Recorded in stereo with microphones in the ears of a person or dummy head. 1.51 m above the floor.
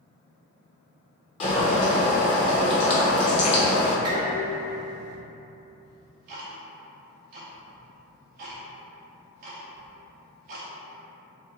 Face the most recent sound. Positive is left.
turn(degrees=-35)  # may be behind; listen again after turning